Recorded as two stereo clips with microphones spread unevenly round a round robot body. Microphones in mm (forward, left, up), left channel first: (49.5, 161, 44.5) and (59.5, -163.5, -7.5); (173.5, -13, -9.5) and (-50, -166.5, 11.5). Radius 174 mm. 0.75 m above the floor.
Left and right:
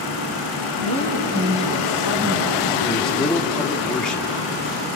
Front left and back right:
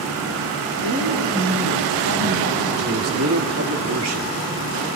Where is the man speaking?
175° right, 1.8 m.